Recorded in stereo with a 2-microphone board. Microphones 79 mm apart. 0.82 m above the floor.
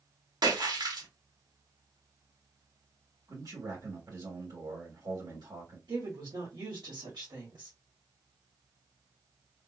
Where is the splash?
70° right (ahead or behind), 1.6 m.